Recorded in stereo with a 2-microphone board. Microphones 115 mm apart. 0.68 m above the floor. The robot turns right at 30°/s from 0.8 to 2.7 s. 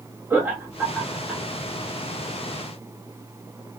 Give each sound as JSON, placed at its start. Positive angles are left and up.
{"t": 0.3, "sound": "laughter", "side_deg": -15, "distance_m": 1.1}